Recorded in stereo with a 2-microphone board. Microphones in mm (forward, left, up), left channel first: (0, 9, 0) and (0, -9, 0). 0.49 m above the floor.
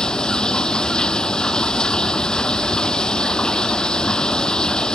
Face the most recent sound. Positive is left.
turn(degrees=55)  # may be behind; listen again after turning